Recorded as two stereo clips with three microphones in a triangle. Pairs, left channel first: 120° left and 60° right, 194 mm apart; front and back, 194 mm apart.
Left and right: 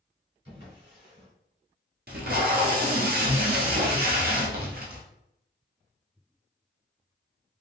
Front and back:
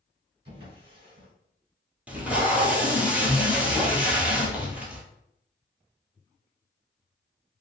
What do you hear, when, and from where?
0.5 s a drawer: 120° right, 1.8 m
2.1 s tape being pulled: 100° right, 0.8 m